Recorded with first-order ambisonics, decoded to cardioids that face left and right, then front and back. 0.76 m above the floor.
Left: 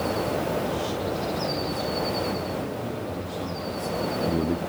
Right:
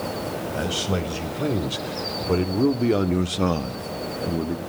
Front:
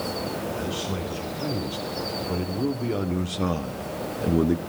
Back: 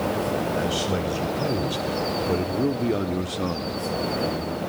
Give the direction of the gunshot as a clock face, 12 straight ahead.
No gunshot in this recording.